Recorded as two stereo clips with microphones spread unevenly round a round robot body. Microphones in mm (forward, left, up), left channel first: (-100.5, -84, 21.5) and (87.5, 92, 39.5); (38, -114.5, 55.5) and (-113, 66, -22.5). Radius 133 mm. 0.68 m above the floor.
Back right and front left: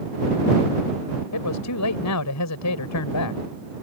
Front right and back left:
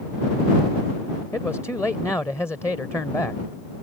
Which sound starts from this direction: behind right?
A man speaking, at 1.3 s.